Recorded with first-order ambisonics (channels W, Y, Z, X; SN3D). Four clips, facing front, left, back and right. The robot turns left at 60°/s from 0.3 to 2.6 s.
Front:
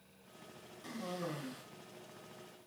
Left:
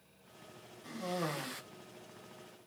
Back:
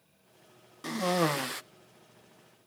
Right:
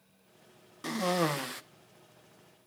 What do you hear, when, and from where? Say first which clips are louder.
0.8 s a cough: right 9 dB, back 14 dB; 125° right, 1.0 m; by 1.6 s 170° right, 1.0 m